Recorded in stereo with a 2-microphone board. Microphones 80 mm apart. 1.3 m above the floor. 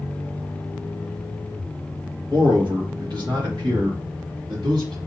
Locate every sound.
2.3 s a man speaking: 70° right (ahead or behind), 1.8 m; by 5.0 s 80° right, 2.5 m